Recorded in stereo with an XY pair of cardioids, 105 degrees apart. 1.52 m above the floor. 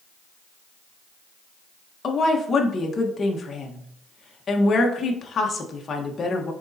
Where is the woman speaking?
40° left, 1.4 m.